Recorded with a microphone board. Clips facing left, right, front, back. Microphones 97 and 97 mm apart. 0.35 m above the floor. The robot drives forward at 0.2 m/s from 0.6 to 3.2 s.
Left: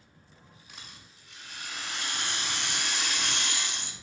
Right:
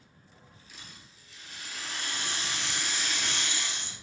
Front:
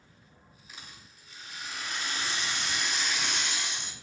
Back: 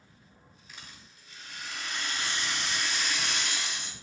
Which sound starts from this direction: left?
A rattle, at 0.7 s.